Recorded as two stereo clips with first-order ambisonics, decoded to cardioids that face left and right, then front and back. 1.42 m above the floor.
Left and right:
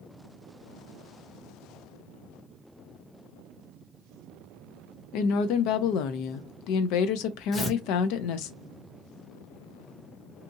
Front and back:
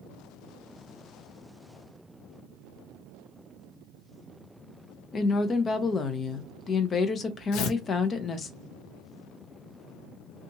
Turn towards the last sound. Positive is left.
turn(degrees=20)